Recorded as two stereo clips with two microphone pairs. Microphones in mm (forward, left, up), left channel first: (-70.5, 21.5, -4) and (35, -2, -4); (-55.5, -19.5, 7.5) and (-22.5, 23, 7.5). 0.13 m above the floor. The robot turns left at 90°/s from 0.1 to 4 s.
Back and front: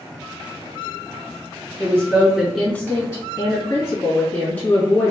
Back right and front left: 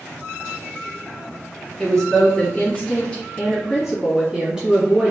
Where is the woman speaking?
45° right, 1.6 m; by 5.1 s 115° left, 1.6 m.